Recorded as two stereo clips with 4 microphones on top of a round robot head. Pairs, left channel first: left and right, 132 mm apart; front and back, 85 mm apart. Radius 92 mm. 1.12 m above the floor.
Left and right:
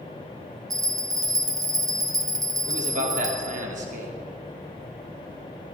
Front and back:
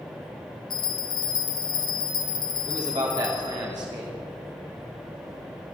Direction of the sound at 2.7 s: 125° right.